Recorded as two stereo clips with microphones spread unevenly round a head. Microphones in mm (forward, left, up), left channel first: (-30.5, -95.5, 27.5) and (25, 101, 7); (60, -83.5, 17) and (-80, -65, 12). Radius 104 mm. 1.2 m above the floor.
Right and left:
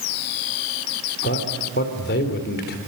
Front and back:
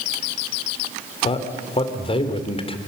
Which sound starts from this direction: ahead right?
A man speaking, at 1.2 s.